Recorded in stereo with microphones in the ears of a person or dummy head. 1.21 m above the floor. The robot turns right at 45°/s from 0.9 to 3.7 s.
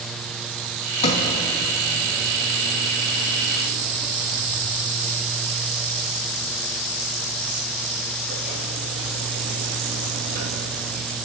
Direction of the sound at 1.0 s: 40° left (ahead or behind).